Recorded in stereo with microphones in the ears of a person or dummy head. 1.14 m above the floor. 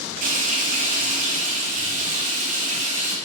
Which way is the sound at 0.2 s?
40° right (ahead or behind).